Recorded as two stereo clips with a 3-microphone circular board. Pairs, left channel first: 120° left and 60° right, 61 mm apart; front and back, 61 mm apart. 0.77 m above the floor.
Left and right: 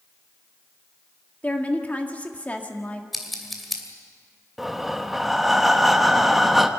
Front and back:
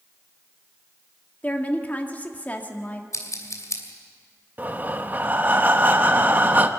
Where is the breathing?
145° right, 1.0 m.